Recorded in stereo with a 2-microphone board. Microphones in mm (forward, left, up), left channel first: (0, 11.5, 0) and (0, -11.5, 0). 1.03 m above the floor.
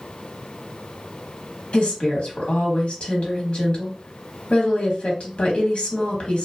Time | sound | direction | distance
1.7 | a woman speaking | 50° left (ahead or behind) | 1.2 m